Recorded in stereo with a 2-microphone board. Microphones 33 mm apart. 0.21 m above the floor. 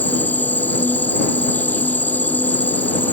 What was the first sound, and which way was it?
An insect, 65° left (ahead or behind).